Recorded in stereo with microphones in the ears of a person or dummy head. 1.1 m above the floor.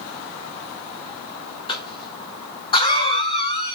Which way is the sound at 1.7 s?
25° left (ahead or behind).